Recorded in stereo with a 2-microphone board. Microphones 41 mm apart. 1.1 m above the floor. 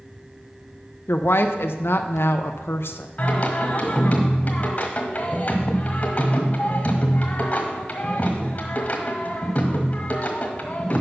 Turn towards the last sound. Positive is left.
turn(degrees=35)  # may be behind; listen again after turning